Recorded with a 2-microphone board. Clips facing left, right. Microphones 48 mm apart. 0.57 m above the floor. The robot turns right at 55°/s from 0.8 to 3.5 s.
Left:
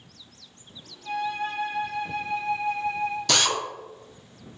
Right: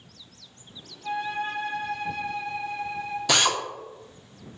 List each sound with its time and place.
1.0 s a flute: 35° right, 0.8 m; by 3.2 s 85° left, 0.8 m
3.3 s a drill: 10° right (ahead or behind), 0.6 m; by 3.6 s 20° right (ahead or behind), 0.6 m